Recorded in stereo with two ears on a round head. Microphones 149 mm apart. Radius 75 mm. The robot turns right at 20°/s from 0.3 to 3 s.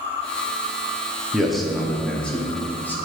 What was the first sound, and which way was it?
A man speaking, centre (ahead or behind).